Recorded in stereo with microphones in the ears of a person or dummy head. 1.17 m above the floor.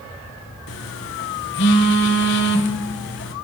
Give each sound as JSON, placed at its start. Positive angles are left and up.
{"t": 0.7, "sound": "a phone buzzing", "side_deg": 50, "distance_m": 0.9}